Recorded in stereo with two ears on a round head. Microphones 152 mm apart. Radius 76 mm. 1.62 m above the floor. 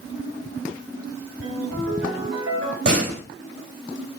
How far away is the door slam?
About 4.5 m.